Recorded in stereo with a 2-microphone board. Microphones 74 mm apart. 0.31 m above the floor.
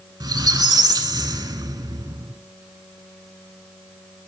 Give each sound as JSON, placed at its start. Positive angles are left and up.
{"t": 0.2, "sound": "a squeak", "side_deg": -70, "distance_m": 0.8}